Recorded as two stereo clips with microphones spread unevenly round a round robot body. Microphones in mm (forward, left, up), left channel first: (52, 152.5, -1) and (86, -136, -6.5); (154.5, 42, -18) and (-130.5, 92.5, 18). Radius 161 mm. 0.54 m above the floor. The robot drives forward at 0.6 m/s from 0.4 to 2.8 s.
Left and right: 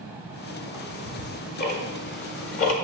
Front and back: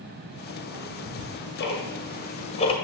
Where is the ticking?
30° left, 2.0 m; by 2.7 s 60° left, 1.1 m.